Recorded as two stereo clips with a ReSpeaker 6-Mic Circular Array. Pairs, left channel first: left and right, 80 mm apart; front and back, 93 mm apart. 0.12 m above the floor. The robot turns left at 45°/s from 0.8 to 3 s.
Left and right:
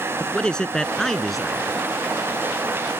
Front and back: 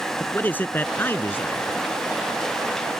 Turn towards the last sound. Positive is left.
turn(degrees=-75)